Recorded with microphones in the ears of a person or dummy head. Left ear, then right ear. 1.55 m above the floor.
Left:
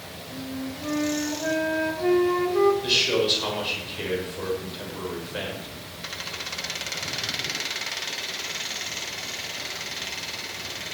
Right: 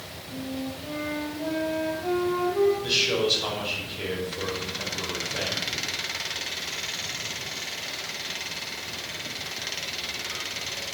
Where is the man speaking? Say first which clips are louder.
Left 2 dB; 30° left (ahead or behind), 6.5 m.